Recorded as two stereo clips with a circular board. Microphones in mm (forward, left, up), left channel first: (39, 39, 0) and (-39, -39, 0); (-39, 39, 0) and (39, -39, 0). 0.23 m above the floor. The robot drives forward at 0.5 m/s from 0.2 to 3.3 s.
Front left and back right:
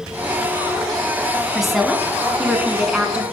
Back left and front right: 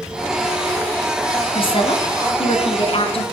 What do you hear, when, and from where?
1.5 s a woman speaking: 135° left, 2.5 m; by 3.2 s 150° left, 3 m